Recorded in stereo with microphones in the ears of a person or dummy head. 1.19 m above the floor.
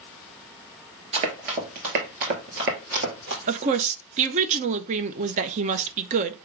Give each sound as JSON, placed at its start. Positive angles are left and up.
{"t": 1.1, "sound": "running footsteps", "side_deg": -40, "distance_m": 1.5}
{"t": 3.5, "sound": "a woman speaking", "side_deg": -40, "distance_m": 0.6}